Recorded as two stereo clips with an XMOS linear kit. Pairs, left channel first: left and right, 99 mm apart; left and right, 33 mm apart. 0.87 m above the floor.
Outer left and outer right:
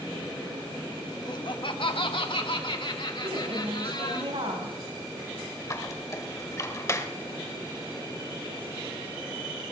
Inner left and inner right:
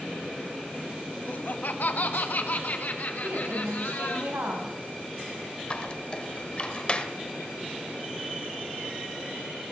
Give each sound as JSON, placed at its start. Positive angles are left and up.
{"t": 1.3, "sound": "laughter", "side_deg": 45, "distance_m": 0.9}
{"t": 3.2, "sound": "a woman speaking", "side_deg": -85, "distance_m": 5.5}
{"t": 5.7, "sound": "a squeak", "side_deg": 35, "distance_m": 1.2}